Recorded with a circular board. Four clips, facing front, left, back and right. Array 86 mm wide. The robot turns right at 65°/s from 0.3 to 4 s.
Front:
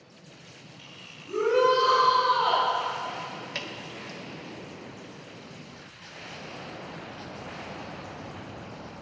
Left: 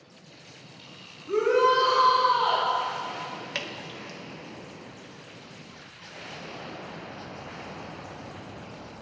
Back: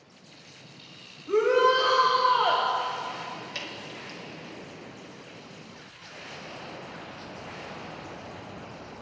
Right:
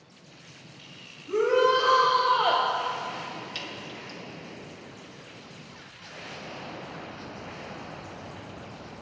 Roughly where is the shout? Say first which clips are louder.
Even, back 1 dB; behind left.